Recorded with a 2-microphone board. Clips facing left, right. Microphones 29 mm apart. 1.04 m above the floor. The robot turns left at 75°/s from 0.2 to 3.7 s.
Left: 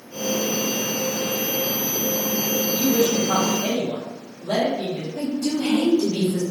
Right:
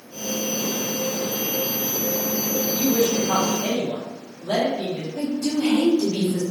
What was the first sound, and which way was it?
A woman speaking, 55° right.